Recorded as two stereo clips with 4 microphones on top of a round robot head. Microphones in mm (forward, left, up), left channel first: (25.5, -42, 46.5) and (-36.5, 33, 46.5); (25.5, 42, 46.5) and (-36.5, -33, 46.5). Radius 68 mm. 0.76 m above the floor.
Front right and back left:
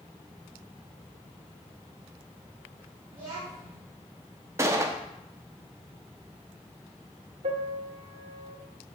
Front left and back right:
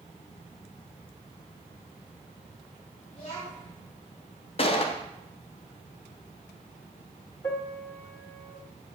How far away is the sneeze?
No sneeze in this recording.